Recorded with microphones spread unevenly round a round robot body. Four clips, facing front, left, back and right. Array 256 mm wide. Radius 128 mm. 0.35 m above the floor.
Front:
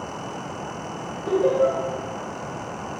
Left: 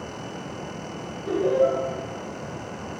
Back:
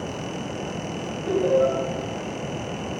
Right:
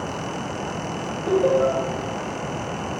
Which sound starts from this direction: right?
Laughter, at 1.3 s.